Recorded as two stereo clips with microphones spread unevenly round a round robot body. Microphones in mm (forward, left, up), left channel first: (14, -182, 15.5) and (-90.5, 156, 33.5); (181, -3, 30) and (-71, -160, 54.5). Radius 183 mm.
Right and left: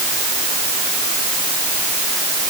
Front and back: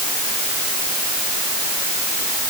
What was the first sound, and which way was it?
Only background noise.